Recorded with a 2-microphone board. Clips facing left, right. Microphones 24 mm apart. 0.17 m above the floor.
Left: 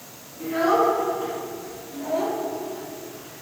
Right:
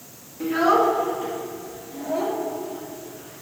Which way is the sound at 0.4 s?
40° right (ahead or behind).